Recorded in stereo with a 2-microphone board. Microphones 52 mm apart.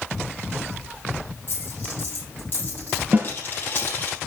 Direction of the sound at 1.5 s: 40° left (ahead or behind).